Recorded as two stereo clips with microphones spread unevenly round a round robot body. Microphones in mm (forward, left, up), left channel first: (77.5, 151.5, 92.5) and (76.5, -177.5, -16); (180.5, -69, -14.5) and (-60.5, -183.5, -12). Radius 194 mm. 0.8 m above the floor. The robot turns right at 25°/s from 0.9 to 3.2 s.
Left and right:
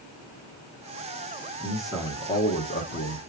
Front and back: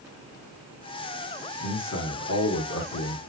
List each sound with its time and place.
1.6 s a man speaking: 15° right, 2.5 m; by 3.2 s 25° left, 2.5 m